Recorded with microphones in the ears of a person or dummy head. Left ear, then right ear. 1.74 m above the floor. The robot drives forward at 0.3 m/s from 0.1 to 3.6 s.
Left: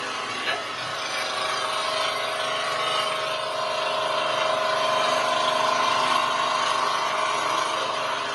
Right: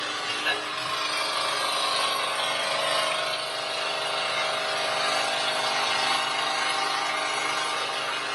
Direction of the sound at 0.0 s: 50° right (ahead or behind).